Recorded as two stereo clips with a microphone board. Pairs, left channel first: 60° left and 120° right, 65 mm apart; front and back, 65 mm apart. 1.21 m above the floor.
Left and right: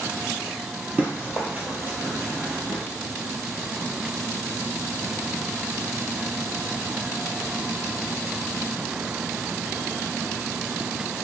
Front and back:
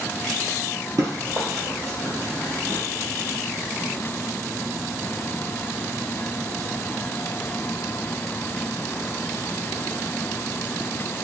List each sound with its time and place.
1.0 s running footsteps: straight behind, 1.9 m; by 2.8 s 170° right, 1.3 m